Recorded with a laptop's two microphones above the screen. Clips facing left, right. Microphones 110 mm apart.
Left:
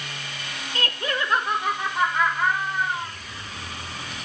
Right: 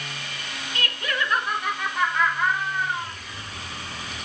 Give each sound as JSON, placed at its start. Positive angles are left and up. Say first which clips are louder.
{"t": 0.8, "sound": "laughter", "louder": "left 1 dB", "side_deg": 35, "distance_m": 0.7}